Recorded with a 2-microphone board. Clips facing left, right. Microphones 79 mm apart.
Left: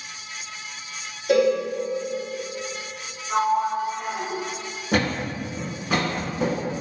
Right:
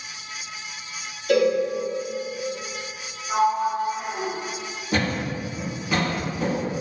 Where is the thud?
65° left (ahead or behind), 1.1 m.